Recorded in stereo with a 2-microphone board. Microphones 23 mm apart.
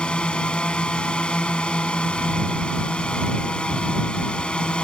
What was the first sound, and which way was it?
A drone, 45° left (ahead or behind).